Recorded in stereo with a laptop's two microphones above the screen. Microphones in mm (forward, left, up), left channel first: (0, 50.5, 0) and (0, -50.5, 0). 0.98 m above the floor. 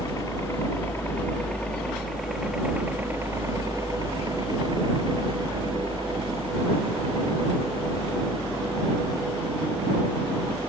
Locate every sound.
0.0 s a helicopter: 35° left (ahead or behind); by 10.7 s 80° right